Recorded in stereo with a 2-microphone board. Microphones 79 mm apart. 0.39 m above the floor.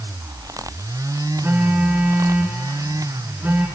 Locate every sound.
1.4 s a phone buzzing: 30° right (ahead or behind), 3.5 m